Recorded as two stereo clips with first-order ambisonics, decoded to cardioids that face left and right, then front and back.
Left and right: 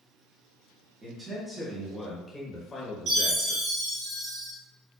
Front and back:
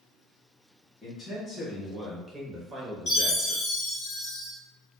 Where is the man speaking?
60° right, 1.1 m; by 3.6 s 125° left, 1.4 m.